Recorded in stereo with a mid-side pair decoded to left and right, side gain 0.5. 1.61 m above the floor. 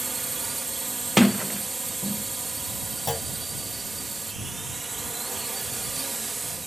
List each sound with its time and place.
0.0 s a drone: 20° right
1.2 s a sliding door: 5° left
3.1 s a clunk: 20° left